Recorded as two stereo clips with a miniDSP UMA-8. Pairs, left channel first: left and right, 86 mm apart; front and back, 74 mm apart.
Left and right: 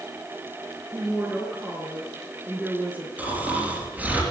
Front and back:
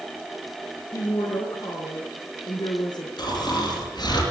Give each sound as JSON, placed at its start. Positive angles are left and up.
{"t": 0.9, "sound": "a woman speaking", "azimuth_deg": -15, "distance_m": 4.5}
{"t": 3.2, "sound": "snoring", "azimuth_deg": -15, "distance_m": 5.0}